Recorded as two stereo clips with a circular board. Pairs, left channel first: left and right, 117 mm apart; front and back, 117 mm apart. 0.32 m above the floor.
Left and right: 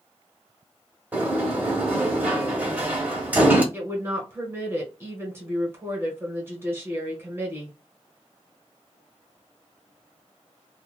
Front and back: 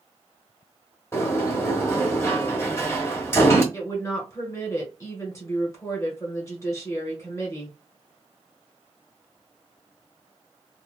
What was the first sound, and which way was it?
A sliding door, 35° right.